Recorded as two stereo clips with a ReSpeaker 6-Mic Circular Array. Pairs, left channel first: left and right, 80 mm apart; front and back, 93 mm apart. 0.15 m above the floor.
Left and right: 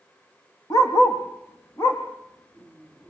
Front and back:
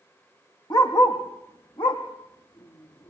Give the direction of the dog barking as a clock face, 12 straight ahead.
11 o'clock.